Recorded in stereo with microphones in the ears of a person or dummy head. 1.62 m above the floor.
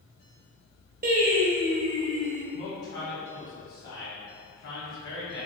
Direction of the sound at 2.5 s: 60° left (ahead or behind).